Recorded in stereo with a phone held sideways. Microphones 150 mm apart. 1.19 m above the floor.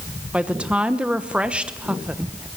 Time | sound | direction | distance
0.3 | a woman speaking | 10° right (ahead or behind) | 1.1 m